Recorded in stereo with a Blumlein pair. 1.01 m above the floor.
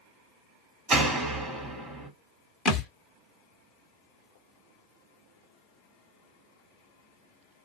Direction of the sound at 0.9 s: 20° right.